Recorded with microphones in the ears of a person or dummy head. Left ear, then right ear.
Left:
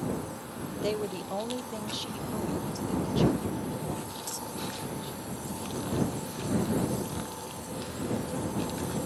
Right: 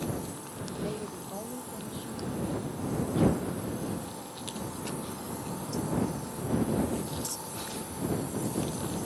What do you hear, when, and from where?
0.8 s a woman speaking: 80° left; by 5.2 s 25° left (ahead or behind)